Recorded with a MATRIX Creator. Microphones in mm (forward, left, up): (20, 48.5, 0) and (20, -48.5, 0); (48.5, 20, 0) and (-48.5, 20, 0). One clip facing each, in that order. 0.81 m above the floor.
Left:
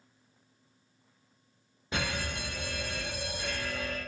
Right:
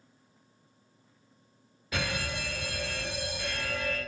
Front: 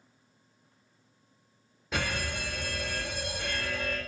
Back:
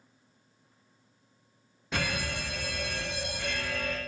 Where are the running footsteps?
I don't hear running footsteps.